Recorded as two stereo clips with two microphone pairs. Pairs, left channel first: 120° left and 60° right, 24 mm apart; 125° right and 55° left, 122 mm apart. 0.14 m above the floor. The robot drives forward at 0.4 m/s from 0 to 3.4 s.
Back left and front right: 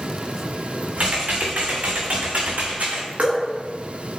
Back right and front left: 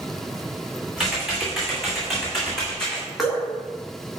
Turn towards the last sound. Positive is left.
turn(degrees=-35)